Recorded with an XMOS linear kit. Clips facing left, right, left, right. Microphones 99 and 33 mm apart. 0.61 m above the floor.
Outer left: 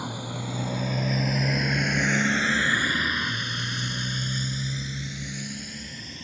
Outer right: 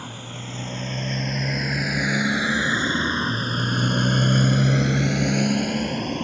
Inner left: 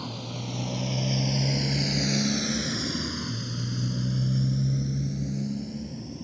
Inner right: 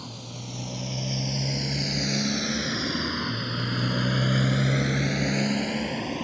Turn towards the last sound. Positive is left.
turn(degrees=-75)  # may be behind; listen again after turning